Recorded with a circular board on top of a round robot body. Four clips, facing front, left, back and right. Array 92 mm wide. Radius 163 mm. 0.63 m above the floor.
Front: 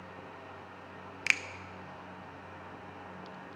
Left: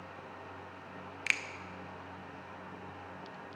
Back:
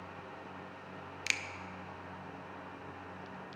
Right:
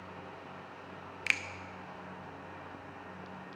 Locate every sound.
1.3 s a finger snap: 5° right, 0.5 m